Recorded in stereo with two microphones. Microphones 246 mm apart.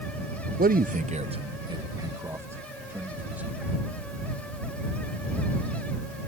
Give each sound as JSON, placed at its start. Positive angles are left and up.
{"t": 0.6, "sound": "a man speaking", "side_deg": -35}